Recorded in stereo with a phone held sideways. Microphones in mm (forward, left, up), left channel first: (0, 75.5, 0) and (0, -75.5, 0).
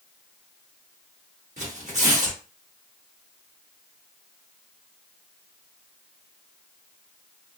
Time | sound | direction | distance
1.6 | tearing paper | 50° right (ahead or behind) | 1.2 m